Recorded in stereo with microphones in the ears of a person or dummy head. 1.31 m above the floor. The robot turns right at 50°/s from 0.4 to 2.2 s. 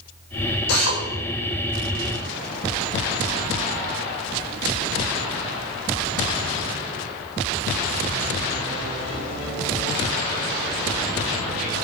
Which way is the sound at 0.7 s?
85° left.